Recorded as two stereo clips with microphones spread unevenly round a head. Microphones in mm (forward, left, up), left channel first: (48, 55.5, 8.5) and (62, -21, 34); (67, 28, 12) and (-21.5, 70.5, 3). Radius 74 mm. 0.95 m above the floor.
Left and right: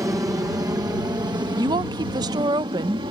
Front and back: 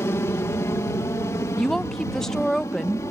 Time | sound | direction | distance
0.0 | an aircraft | 55° right | ?
1.6 | a woman speaking | 115° right | ?